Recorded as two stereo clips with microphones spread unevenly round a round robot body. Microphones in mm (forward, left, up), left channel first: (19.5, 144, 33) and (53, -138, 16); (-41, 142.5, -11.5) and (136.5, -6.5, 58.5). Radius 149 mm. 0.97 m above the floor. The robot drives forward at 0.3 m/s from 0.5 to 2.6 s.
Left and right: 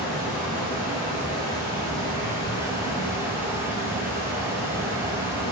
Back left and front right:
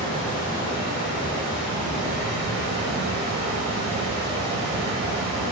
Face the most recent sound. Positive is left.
turn(degrees=0)